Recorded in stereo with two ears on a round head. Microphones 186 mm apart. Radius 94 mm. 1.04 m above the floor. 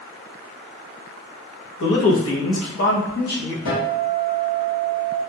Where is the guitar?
85° left, 1.6 m.